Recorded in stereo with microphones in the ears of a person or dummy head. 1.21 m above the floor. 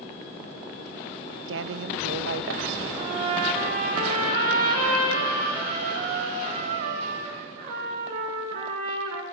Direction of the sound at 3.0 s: 50° right (ahead or behind).